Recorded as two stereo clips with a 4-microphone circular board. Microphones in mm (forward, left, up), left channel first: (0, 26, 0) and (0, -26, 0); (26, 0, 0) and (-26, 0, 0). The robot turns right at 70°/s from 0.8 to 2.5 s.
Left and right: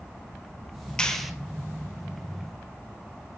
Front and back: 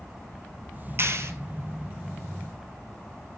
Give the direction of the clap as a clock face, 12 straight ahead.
7 o'clock.